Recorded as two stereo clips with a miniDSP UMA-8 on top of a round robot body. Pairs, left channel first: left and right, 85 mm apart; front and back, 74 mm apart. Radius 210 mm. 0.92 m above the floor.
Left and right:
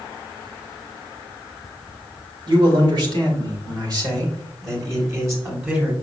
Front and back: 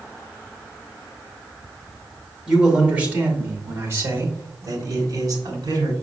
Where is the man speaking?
100° right, 2 m; by 5.9 s 155° right, 2.5 m.